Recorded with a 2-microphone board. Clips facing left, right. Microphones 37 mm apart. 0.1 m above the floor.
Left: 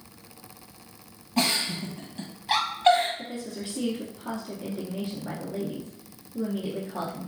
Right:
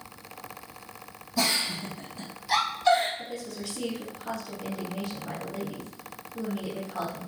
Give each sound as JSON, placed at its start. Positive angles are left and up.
{"t": 1.4, "sound": "a giggle", "side_deg": 50, "distance_m": 1.9}
{"t": 3.2, "sound": "a woman speaking", "side_deg": 25, "distance_m": 1.6}